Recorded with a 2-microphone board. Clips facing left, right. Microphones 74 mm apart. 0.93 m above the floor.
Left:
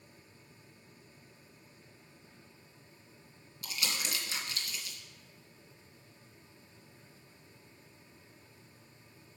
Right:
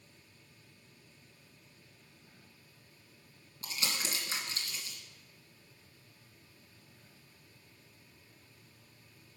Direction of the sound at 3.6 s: 35° right (ahead or behind).